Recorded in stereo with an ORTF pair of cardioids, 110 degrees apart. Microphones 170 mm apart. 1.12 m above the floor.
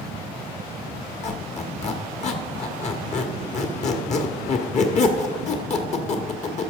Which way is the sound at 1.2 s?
45° left.